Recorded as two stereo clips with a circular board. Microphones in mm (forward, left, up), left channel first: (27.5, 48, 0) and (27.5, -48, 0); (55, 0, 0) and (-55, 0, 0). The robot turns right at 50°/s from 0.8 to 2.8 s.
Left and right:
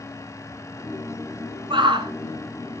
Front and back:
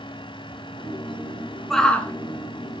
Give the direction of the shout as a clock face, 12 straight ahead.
3 o'clock.